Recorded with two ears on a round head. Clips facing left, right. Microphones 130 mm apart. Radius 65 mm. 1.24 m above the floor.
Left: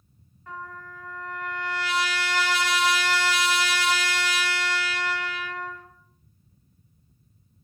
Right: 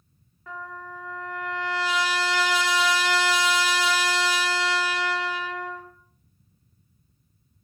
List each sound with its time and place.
0.5 s a trumpet: 70° right (ahead or behind), 0.7 m